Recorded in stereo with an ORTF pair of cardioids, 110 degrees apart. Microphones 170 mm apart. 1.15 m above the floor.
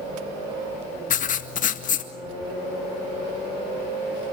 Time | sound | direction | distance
1.1 | writing | 50° left | 1.9 m